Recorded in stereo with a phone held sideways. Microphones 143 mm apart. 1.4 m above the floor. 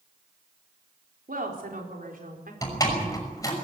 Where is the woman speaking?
85° right, 4 m; by 2.5 s 80° right, 4.5 m.